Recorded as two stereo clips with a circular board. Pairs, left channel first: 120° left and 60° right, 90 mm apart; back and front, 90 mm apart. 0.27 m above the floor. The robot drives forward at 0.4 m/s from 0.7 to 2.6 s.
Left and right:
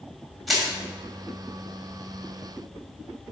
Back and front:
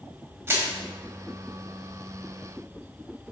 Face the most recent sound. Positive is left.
turn(degrees=90)